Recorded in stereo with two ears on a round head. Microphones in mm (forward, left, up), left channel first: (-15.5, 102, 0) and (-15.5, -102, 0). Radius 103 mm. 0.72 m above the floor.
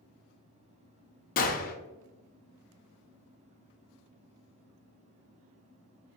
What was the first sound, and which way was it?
A gunshot, 40° left (ahead or behind).